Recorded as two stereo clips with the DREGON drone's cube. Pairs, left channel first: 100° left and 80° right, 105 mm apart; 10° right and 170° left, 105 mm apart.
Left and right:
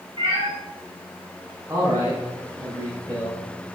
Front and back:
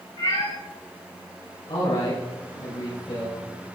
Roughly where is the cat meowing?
Ahead right.